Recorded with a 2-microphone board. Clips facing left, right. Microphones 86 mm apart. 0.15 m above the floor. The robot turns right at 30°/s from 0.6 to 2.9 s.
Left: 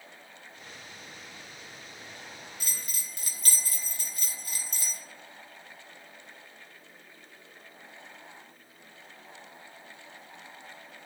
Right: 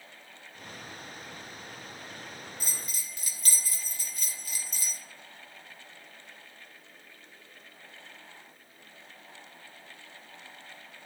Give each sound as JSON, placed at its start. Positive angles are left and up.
{"t": 2.6, "sound": "a bell", "side_deg": 60, "distance_m": 0.5}